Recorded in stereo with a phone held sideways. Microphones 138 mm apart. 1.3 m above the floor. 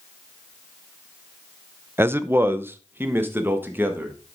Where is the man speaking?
15° right (ahead or behind), 0.5 m.